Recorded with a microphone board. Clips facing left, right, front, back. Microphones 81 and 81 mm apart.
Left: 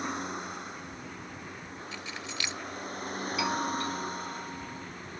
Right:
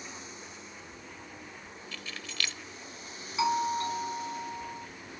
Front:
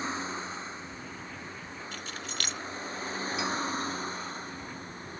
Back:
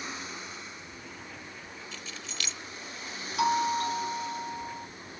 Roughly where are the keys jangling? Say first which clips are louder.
Left 1 dB, front 5 dB; ahead.